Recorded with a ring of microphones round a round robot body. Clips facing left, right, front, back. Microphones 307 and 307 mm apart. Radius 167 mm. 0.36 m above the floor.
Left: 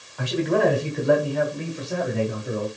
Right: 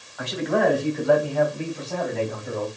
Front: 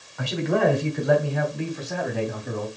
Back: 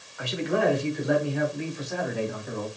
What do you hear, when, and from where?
0.2 s a man speaking: 35° left, 2.5 m; by 2.7 s 10° left, 3 m